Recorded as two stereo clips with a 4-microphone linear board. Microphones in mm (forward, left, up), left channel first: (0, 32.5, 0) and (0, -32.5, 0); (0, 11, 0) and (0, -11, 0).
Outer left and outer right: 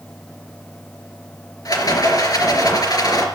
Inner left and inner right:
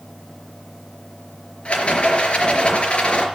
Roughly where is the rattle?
Left.